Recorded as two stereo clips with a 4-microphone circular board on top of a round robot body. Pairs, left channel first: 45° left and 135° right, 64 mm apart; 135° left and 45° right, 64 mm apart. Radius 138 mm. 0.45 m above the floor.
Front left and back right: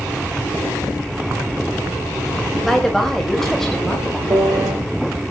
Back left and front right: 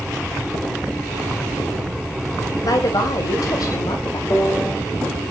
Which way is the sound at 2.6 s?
130° left.